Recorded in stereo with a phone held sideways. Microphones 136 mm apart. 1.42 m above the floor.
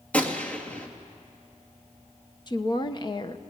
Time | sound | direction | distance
0.1 | a gunshot | 10° left (ahead or behind) | 2 m
2.5 | a woman speaking | 35° left (ahead or behind) | 1.2 m